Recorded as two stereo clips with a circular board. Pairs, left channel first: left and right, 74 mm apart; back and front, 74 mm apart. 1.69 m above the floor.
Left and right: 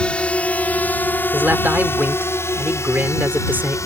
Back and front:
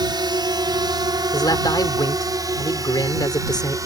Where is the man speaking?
155° right.